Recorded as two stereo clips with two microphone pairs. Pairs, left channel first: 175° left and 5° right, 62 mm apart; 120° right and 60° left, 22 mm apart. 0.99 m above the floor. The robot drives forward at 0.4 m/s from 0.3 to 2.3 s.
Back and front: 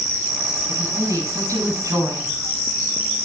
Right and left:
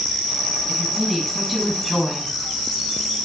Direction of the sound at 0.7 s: 35° right.